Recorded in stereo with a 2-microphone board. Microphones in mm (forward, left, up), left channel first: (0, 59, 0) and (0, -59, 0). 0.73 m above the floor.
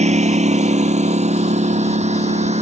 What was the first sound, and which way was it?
A lawn mower, 70° right (ahead or behind).